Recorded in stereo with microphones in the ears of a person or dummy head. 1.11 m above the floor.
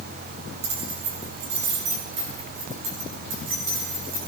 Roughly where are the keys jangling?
Right.